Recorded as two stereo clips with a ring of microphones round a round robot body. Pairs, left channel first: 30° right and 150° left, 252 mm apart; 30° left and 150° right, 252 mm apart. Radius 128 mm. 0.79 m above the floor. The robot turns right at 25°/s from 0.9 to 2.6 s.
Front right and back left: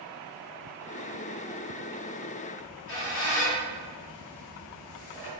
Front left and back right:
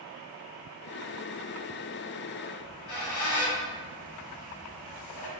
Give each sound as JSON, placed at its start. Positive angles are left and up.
{"t": 2.6, "sound": "a squeak", "azimuth_deg": 10, "distance_m": 3.0}